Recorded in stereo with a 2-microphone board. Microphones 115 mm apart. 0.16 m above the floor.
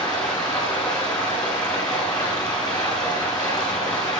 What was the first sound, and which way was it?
Running water, 35° left (ahead or behind).